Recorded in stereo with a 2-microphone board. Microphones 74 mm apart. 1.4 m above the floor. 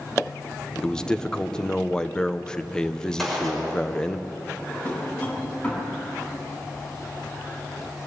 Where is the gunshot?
5° left (ahead or behind), 5.5 m.